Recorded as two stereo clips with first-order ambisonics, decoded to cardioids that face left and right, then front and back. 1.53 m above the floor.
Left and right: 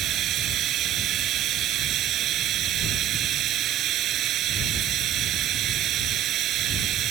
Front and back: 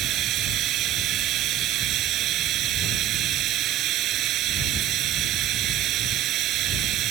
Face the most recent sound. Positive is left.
turn(degrees=-135)